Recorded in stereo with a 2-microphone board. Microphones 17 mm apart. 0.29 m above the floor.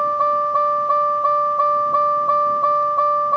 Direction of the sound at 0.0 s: 55° right (ahead or behind).